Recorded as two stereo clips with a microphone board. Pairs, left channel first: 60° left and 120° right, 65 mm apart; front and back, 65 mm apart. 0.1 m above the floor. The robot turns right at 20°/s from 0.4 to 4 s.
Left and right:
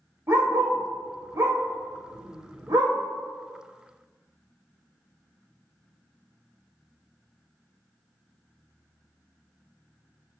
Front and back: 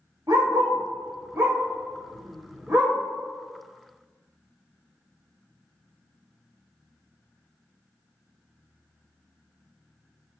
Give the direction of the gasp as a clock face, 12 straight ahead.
No gasp in this recording.